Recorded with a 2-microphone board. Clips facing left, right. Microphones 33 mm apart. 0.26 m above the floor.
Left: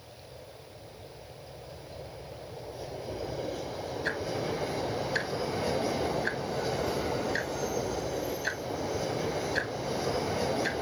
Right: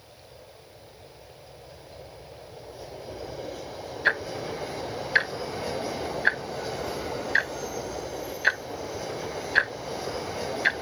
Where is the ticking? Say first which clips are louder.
Right 7 dB; 45° right (ahead or behind), 0.7 m.